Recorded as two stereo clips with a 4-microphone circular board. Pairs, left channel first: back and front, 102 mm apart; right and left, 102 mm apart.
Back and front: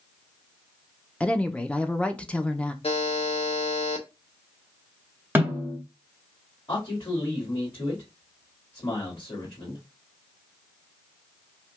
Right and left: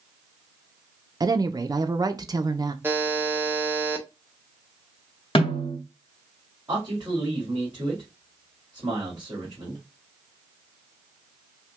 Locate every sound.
1.2 s a woman speaking: 110° left, 0.5 m
2.8 s a buzzer: 160° left, 0.8 m
5.3 s a snare drum: 70° right, 1.5 m
6.7 s a man speaking: 135° left, 2 m